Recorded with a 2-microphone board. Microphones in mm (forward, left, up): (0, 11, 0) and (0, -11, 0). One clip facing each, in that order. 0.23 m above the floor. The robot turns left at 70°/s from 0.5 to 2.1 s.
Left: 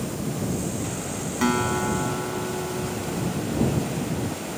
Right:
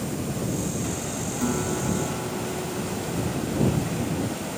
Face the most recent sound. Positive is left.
turn(degrees=45)